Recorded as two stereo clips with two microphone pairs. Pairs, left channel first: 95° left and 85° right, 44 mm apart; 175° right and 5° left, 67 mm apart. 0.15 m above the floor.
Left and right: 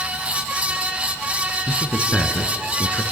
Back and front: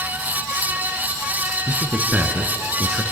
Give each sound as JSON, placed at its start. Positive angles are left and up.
{"t": 1.7, "sound": "a man speaking", "azimuth_deg": 65, "distance_m": 1.8}